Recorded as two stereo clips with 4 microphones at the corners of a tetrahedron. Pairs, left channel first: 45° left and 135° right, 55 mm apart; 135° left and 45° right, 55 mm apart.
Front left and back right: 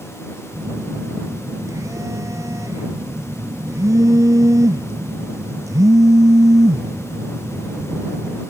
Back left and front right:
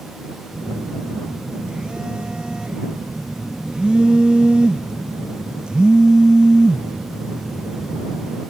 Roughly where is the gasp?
I don't hear a gasp.